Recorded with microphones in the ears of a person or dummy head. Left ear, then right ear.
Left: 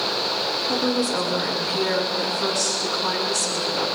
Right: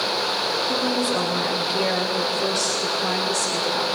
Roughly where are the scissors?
I don't hear scissors.